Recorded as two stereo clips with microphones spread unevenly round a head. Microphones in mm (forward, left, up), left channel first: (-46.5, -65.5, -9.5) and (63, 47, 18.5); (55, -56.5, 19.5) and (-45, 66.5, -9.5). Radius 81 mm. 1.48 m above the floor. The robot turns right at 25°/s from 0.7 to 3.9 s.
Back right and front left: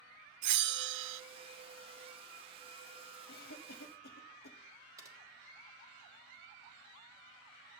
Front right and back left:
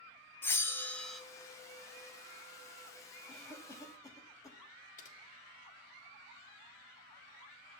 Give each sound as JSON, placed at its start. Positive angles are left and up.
{"t": 0.4, "sound": "a bell", "azimuth_deg": 30, "distance_m": 0.6}
{"t": 3.3, "sound": "a cough", "azimuth_deg": -140, "distance_m": 0.9}
{"t": 5.0, "sound": "typing on a keyboard", "azimuth_deg": -20, "distance_m": 1.9}